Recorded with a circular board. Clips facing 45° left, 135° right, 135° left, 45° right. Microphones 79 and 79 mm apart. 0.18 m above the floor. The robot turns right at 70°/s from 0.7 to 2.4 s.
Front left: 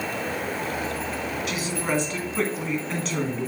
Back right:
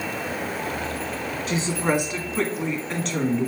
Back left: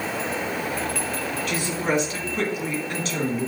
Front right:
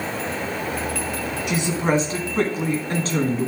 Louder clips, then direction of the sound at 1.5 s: Back right 6 dB, front right 4 dB; 110° right.